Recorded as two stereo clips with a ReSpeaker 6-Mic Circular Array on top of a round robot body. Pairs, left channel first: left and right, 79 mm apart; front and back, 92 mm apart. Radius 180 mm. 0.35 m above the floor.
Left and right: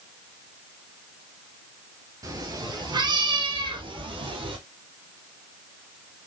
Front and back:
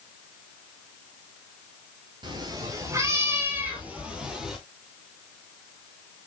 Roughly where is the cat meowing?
Behind right.